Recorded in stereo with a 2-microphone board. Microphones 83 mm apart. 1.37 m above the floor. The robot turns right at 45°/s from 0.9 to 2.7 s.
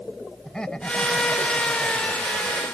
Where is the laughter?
175° left; by 2.6 s 110° right.